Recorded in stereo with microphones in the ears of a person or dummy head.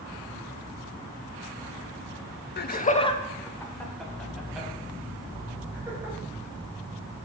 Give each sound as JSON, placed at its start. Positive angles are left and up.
{"t": 2.6, "sound": "laughter", "side_deg": 45, "distance_m": 0.6}